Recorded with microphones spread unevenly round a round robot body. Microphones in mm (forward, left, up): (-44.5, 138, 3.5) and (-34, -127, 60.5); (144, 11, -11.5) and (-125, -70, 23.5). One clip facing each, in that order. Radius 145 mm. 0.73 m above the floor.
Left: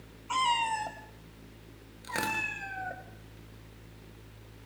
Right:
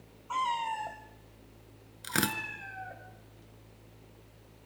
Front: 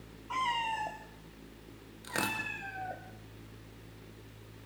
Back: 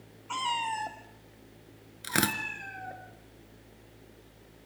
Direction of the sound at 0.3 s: 140° left.